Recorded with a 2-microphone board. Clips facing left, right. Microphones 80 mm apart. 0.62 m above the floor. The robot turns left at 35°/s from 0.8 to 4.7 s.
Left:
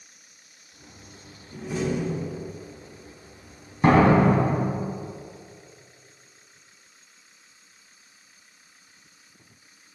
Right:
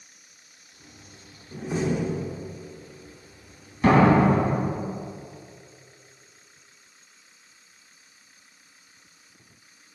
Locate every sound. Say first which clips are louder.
1.5 s a door slam: right 1 dB; 145° right, 0.9 m; by 2.4 s straight behind, 0.9 m
3.8 s a door slam: even; 155° left, 3 m; by 4.7 s 120° left, 3 m